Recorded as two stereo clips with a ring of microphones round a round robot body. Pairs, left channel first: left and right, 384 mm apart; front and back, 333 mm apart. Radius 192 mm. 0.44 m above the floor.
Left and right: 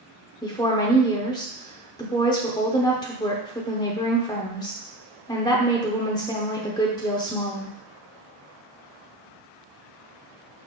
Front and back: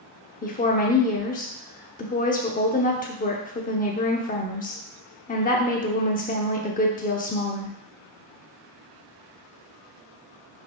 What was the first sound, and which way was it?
A woman speaking, 25° left.